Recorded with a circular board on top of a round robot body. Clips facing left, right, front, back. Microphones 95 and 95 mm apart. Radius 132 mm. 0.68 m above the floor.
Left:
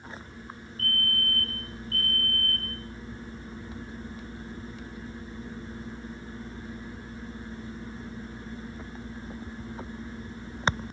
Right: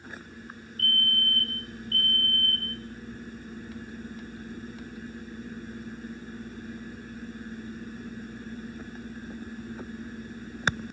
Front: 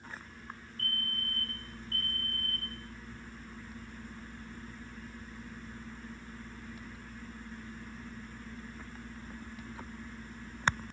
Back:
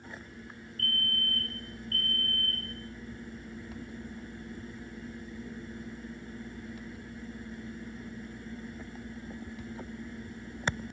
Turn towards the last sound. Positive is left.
turn(degrees=-60)